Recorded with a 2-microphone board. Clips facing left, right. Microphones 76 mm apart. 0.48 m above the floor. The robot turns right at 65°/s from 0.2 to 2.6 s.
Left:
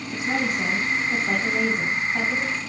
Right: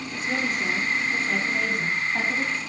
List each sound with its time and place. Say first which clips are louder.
0.1 s a woman speaking: left 3 dB; 60° left, 4 m; by 2.6 s 145° right, 4 m